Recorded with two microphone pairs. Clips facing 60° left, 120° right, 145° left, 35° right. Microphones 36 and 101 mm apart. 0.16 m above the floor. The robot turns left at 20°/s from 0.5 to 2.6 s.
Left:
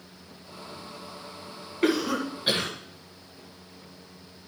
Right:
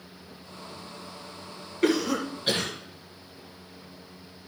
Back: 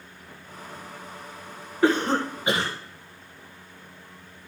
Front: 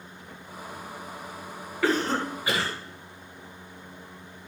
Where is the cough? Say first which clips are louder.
Even, back 4 dB; 125° left, 1.6 m; by 2.7 s 110° left, 1.6 m.